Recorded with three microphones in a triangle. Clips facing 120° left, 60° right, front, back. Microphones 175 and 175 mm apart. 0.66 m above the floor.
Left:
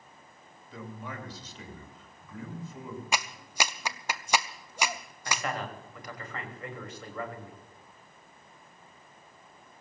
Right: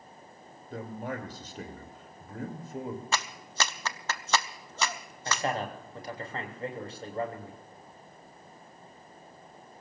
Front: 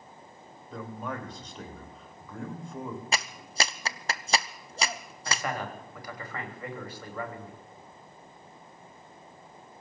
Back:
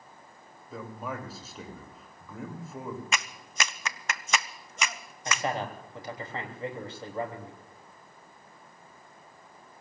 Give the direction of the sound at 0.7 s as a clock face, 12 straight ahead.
3 o'clock.